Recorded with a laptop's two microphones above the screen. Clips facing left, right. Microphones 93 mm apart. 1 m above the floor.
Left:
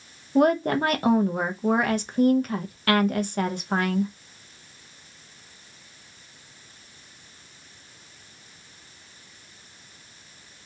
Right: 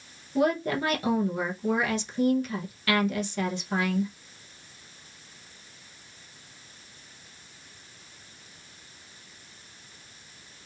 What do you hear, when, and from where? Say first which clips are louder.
0.3 s a woman speaking: left 5 dB; 55° left (ahead or behind), 0.6 m